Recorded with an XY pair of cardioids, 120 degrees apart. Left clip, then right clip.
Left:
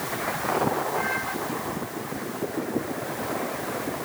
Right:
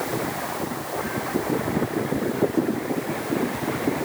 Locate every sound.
Only background noise.